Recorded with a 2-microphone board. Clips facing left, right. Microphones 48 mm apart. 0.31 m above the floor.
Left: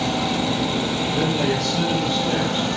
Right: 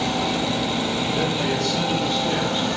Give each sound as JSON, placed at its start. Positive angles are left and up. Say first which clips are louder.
{"t": 1.1, "sound": "a man speaking", "louder": "left 3 dB", "side_deg": 10, "distance_m": 5.5}